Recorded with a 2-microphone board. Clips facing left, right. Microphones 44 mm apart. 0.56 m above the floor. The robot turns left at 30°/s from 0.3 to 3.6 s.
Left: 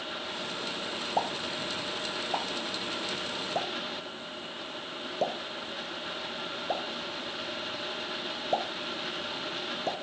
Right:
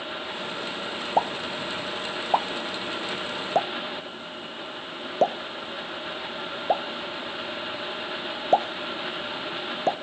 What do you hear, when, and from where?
1.2 s a pop: 30° right (ahead or behind), 0.5 m; by 9.9 s 45° right (ahead or behind), 0.5 m